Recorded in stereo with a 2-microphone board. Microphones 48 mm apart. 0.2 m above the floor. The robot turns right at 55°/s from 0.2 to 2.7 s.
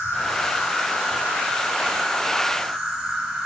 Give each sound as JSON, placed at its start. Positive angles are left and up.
{"t": 0.0, "sound": "an insect", "azimuth_deg": 45, "distance_m": 2.5}